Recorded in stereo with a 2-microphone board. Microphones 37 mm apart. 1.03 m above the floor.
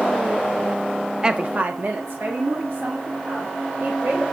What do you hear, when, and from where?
1.2 s a woman speaking: 20° right (ahead or behind), 0.5 m; by 4.3 s 80° right, 4 m